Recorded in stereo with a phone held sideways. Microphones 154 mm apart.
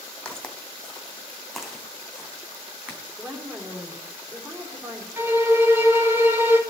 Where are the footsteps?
5° left (ahead or behind), 2.5 m; by 3.0 s 10° right (ahead or behind), 4 m.